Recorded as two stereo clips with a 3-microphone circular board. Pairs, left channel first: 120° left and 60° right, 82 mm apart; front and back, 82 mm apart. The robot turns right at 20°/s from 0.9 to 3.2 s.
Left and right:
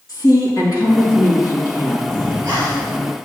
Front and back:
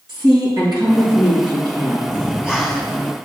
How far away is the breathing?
About 3.5 m.